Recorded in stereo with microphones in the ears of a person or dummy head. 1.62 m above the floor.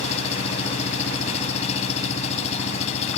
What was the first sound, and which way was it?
An engine running, 30° left (ahead or behind).